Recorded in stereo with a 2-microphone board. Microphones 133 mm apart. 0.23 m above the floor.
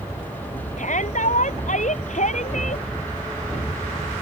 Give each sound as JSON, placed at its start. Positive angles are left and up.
{"t": 0.8, "sound": "a shout", "side_deg": 70}